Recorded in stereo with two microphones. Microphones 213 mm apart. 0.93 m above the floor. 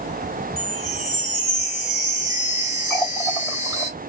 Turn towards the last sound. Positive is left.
turn(degrees=5)  # may be behind; listen again after turning